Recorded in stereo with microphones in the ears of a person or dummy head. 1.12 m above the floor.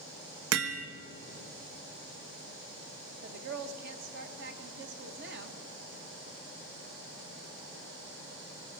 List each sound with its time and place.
0.5 s hammering: 85° right, 1.1 m
3.2 s a woman speaking: 55° right (ahead or behind), 1.2 m